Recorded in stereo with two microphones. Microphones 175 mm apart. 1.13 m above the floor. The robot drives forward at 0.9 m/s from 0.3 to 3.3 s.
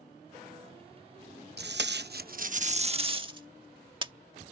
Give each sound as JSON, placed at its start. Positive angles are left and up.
{"t": 1.6, "sound": "tape being pulled", "side_deg": -70}